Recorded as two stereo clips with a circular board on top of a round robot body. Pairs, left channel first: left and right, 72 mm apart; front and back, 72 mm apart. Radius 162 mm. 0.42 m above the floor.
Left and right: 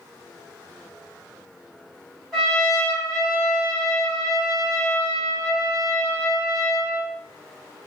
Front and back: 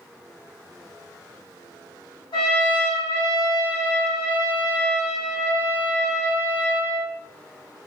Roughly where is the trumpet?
Ahead.